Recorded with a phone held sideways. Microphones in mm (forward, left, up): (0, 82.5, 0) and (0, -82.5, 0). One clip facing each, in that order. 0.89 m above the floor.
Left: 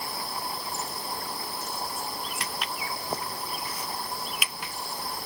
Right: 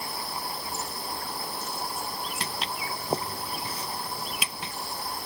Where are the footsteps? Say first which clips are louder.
Right 1 dB; 30° right (ahead or behind); by 4.7 s 25° right (ahead or behind).